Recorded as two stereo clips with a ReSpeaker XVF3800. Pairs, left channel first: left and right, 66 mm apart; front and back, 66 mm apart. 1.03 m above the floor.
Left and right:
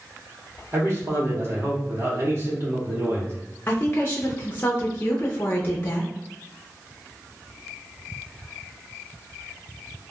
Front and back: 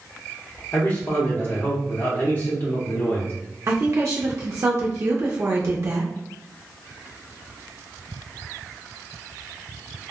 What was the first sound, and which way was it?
A man speaking, 50° right.